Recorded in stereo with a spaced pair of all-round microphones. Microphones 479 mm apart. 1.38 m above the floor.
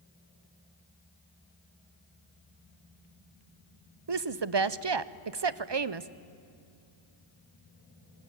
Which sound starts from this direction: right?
A woman speaking, at 4.1 s.